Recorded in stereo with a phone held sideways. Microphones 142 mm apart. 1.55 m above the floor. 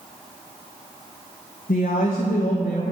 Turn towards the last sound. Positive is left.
turn(degrees=85)